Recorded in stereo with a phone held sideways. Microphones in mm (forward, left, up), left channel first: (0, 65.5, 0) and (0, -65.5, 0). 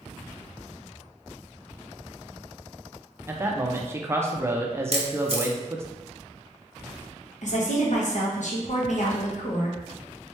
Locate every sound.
3.3 s a man speaking: 20° right (ahead or behind), 0.5 m
4.9 s a camera shutter: 50° right (ahead or behind), 0.6 m
7.4 s a woman speaking: 70° left (ahead or behind), 1.0 m